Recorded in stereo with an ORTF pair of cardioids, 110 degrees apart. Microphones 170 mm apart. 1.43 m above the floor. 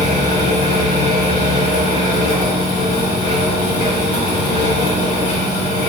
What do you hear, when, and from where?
0.0 s a fan: 60° left, 1.9 m